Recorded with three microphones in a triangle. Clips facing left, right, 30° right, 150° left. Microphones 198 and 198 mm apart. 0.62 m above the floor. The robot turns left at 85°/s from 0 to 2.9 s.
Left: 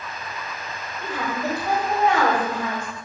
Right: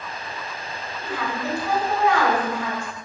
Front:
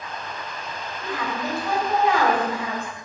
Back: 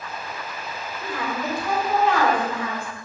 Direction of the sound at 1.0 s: 135° left.